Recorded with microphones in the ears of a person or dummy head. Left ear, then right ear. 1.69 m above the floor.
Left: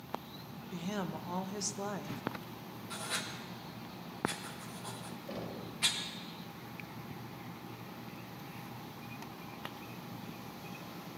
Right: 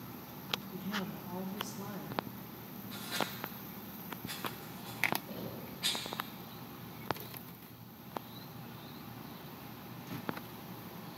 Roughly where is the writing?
Left.